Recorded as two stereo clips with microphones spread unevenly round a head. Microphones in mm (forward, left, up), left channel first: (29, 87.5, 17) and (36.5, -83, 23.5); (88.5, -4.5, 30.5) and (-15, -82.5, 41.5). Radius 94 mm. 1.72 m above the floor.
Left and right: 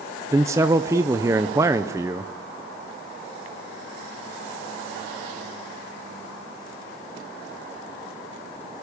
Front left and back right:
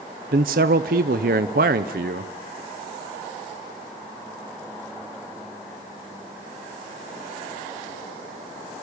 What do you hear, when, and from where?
0.3 s a man speaking: 160° right, 0.8 m